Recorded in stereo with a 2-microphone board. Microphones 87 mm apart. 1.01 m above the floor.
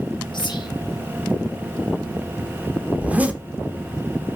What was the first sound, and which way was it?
Whispering, 60° left (ahead or behind).